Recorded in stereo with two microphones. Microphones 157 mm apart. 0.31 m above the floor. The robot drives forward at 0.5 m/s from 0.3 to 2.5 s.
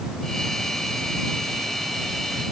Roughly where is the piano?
I don't hear a piano.